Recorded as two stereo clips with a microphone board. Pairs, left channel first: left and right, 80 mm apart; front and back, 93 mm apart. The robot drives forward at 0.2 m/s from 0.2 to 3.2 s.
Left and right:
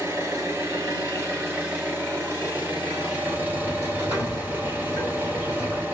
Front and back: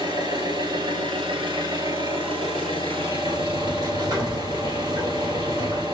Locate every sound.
0.0 s an engine running: 145° right, 1.6 m; by 5.9 s 155° right, 2 m
3.3 s a sliding door: 150° right, 2.5 m